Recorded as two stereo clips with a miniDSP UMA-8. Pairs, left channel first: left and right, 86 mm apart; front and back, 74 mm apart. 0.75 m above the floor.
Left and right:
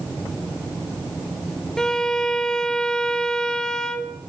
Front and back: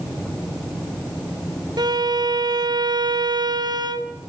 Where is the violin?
170° left, 1.9 m.